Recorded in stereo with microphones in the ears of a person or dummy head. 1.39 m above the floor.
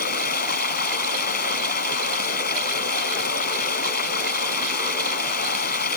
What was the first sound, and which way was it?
Running water, 45° left (ahead or behind).